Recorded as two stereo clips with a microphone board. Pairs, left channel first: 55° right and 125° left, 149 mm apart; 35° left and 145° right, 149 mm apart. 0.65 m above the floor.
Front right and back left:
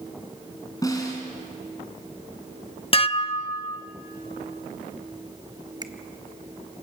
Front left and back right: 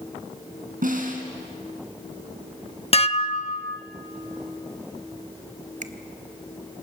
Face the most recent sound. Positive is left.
turn(degrees=-175)